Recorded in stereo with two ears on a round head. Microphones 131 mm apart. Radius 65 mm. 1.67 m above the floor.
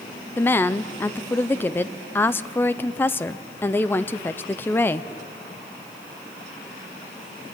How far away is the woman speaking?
About 0.7 m.